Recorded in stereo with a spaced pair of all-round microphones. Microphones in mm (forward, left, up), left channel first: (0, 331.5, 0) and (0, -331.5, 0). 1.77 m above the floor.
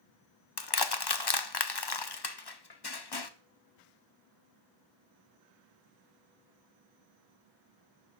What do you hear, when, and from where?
0.6 s crushing: 35° left (ahead or behind), 0.8 m